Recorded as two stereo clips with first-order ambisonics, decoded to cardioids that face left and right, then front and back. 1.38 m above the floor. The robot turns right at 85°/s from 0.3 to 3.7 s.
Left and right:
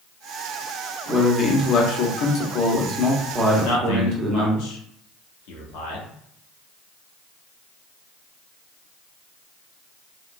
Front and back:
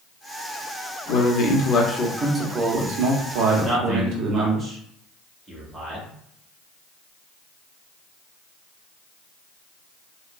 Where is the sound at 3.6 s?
80° left, 1.1 m; by 6.1 s 90° left, 1.1 m.